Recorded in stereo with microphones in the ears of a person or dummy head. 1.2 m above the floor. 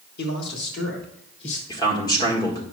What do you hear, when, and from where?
0.2 s a man speaking: 60° left (ahead or behind), 1.2 m; by 1.6 s 70° left (ahead or behind), 2.5 m
1.7 s a man speaking: 20° left (ahead or behind), 1.6 m